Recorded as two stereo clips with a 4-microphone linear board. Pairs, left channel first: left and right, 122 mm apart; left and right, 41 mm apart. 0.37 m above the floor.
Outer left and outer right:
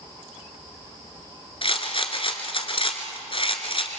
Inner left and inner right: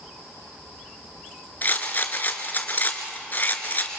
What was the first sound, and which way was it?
A rattle, 45° left (ahead or behind).